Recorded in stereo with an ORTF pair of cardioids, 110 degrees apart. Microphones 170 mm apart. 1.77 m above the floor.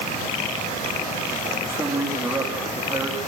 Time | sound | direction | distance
1.6 | a man speaking | 15° right | 3.5 m